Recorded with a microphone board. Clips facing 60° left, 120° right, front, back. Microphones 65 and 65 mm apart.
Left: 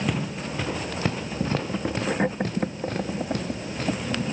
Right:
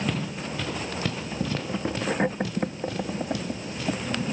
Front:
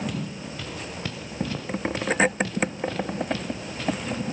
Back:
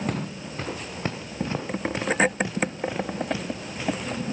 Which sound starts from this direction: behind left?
Footsteps, at 0.1 s.